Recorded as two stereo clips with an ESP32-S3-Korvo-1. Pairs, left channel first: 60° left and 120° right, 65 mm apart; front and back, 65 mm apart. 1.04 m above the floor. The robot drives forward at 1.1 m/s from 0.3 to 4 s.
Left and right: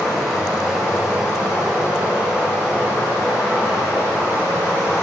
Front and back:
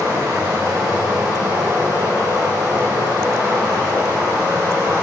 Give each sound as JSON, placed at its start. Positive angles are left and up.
{"t": 0.0, "sound": "running water", "azimuth_deg": 160, "distance_m": 5.5}